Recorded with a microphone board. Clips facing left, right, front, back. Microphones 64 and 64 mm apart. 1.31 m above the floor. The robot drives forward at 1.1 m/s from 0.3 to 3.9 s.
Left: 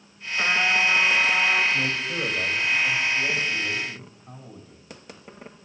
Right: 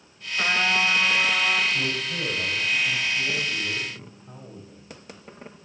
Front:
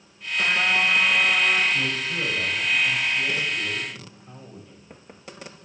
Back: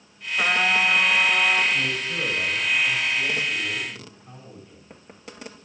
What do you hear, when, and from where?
0.4 s a trumpet: straight behind, 1.3 m
1.7 s a man speaking: 105° left, 6.5 m; by 4.8 s 120° left, 7.5 m